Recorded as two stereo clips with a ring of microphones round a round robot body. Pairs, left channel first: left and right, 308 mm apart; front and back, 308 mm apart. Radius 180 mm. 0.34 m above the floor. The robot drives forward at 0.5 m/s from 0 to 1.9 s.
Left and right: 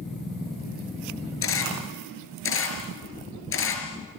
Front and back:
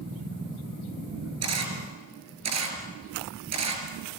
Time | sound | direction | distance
1.4 | a camera shutter | 140° left | 4.5 m